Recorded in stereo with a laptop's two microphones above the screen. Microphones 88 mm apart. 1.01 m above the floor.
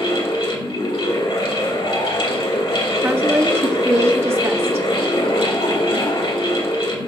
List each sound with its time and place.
0.0 s a fan: 80° left, 1.4 m
3.0 s a woman speaking: 30° right (ahead or behind), 0.9 m